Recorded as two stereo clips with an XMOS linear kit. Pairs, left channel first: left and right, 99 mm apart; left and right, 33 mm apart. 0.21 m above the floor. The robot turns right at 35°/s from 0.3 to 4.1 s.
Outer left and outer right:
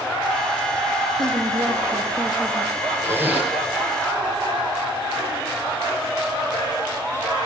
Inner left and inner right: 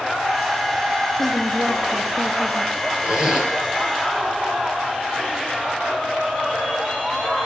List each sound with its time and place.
1.2 s a woman speaking: 70° right, 5.5 m; by 2.7 s 15° right, 5.5 m
3.0 s a zipper: 25° right (ahead or behind), 4 m; by 3.5 s 10° right (ahead or behind), 4 m